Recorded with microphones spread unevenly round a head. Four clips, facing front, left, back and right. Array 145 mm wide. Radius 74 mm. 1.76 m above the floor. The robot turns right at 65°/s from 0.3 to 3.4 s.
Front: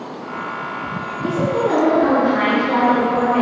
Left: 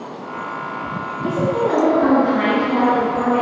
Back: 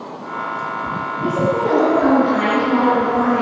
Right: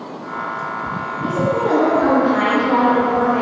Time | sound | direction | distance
1.2 | a woman speaking | 165° right | 1.7 m